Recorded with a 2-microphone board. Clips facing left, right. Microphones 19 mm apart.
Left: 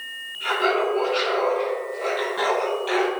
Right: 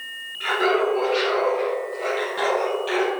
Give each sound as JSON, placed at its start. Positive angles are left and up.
{"t": 0.4, "sound": "laughter", "side_deg": -20, "distance_m": 2.5}